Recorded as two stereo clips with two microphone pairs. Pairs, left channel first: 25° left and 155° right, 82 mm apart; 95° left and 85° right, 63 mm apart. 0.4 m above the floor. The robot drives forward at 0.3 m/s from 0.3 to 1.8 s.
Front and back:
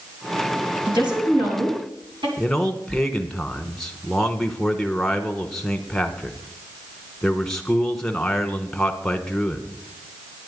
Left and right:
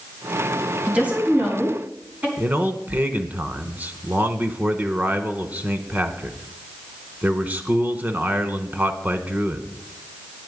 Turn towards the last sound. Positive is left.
turn(degrees=-50)